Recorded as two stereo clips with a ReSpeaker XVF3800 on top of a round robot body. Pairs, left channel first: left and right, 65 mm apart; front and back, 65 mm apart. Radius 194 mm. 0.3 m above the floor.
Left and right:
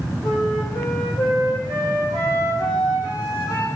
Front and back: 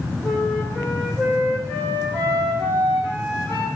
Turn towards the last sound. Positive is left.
turn(degrees=65)